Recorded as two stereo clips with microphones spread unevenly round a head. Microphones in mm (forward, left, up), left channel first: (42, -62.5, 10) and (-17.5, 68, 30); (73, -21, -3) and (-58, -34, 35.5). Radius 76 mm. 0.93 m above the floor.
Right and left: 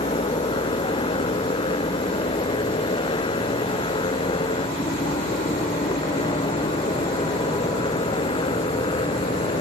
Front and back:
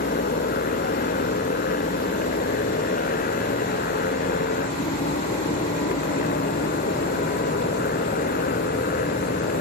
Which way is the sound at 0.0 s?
10° right.